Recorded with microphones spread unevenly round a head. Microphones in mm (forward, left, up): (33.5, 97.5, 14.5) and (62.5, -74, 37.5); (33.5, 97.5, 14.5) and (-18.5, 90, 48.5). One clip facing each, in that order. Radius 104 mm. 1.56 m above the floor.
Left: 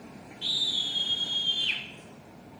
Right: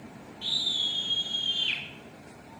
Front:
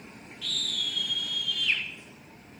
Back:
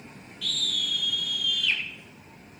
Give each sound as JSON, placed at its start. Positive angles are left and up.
{"t": 0.4, "sound": "a scream", "azimuth_deg": -170, "distance_m": 6.5}